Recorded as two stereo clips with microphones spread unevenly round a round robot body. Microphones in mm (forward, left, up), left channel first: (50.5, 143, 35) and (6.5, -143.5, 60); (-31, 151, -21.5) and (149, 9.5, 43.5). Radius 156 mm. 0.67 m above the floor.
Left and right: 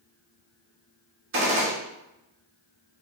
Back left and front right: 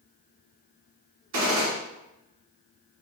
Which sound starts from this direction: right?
A gunshot, at 1.3 s.